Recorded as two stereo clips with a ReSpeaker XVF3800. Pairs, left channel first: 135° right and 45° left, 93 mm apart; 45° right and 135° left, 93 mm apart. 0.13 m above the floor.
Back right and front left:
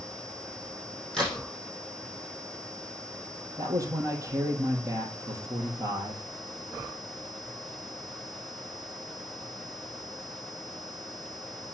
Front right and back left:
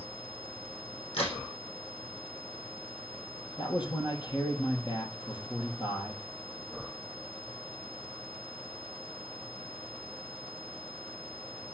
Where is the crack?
50° right, 5.5 m.